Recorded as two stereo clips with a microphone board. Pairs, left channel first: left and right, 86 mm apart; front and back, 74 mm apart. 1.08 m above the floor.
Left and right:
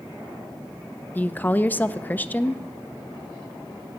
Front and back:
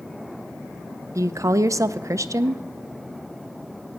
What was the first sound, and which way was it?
A woman speaking, 155° left.